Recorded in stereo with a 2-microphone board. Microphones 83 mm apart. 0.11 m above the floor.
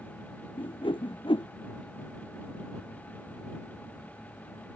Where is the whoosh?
80° left.